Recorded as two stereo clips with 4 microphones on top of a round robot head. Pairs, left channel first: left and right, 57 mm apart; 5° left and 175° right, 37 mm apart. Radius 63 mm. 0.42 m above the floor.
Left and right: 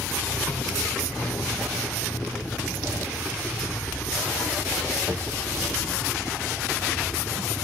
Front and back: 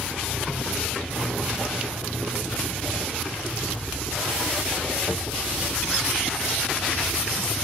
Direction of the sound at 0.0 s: 5° right.